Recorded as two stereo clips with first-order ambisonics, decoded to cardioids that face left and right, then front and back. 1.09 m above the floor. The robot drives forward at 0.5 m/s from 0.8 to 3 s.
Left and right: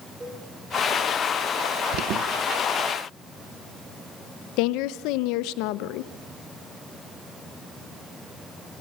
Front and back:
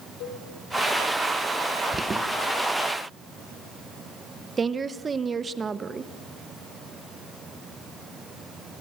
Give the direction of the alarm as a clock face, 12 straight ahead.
4 o'clock.